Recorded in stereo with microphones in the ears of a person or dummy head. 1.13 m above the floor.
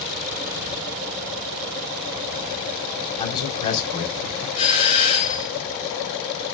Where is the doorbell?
40° left (ahead or behind), 4.5 m.